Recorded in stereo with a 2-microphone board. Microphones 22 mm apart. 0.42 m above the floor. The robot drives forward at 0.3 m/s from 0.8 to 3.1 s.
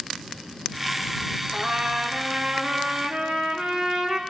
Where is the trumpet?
40° right (ahead or behind), 5 m; by 4.2 s 35° right (ahead or behind), 5.5 m.